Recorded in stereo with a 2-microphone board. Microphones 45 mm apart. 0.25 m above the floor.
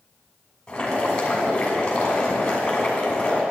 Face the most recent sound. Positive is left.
turn(degrees=20)  # may be behind; listen again after turning